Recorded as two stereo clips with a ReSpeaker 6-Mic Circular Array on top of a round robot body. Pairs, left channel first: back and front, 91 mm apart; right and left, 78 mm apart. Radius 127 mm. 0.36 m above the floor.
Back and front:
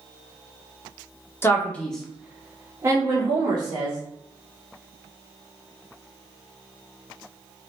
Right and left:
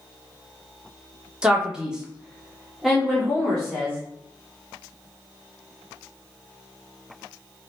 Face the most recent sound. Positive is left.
turn(degrees=0)